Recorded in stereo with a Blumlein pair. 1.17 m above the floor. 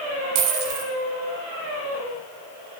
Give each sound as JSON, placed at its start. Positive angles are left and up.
{"t": 0.3, "sound": "a dropped coin", "azimuth_deg": -40, "distance_m": 3.5}